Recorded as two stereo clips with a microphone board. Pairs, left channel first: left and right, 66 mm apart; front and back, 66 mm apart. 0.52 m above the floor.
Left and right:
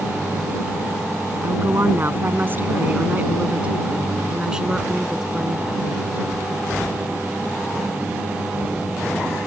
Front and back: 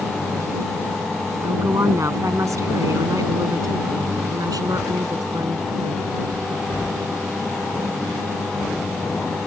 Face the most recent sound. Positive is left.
turn(degrees=180)